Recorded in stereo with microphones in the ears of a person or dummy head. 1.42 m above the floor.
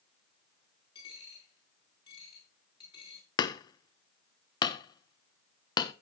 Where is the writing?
I don't hear writing.